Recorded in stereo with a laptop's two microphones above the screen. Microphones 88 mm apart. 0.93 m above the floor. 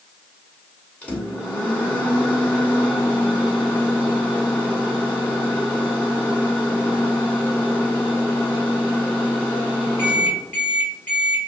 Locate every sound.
1.0 s a microwave: 15° left (ahead or behind), 1.5 m